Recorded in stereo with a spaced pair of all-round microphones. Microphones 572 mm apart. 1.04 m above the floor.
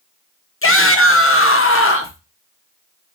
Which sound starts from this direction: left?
A shout, at 0.6 s.